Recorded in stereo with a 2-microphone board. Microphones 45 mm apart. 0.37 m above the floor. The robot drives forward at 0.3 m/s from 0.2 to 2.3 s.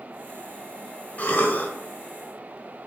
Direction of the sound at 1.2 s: 35° left (ahead or behind).